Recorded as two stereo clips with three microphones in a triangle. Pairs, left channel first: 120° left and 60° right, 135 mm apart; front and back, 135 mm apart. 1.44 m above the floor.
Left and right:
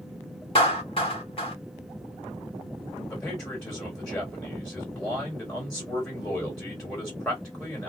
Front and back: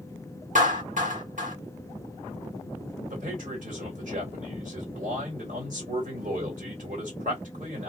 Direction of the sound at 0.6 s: 165° left.